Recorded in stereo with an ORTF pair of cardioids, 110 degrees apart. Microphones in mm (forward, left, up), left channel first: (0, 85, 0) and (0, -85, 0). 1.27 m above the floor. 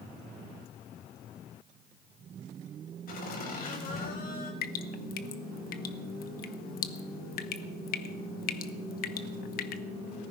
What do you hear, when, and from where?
3.1 s laughter: 55° left, 6 m
4.6 s dripping: 55° left, 1.2 m